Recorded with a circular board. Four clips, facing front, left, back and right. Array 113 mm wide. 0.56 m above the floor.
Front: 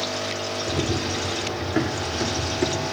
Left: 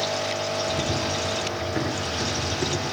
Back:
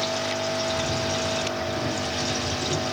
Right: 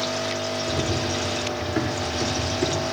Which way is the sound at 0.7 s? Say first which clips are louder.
Right 1 dB, front 1 dB; straight ahead.